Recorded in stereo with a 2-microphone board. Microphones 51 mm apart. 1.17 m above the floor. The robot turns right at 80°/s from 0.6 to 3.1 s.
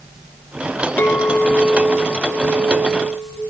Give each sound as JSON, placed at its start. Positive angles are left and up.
{"t": 1.0, "sound": "a clink", "azimuth_deg": 95, "distance_m": 0.5}